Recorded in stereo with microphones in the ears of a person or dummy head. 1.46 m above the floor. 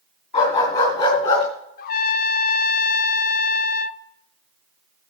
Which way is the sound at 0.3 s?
40° left (ahead or behind).